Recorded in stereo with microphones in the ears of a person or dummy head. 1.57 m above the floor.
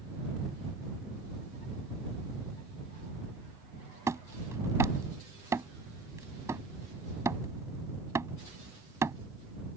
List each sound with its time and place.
4.1 s hammering: 15° right (ahead or behind)